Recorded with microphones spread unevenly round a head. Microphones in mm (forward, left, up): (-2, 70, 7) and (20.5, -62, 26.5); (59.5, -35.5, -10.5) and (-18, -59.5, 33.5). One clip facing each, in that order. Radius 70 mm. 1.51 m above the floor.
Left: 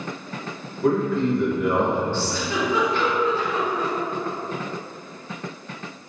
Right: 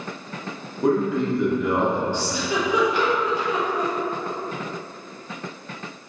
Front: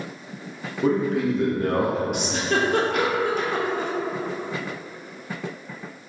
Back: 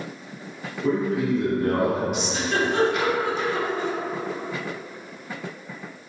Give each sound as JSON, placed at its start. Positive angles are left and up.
{"t": 0.8, "sound": "a man speaking", "azimuth_deg": -15, "distance_m": 1.1}
{"t": 2.1, "sound": "a giggle", "azimuth_deg": -25, "distance_m": 0.7}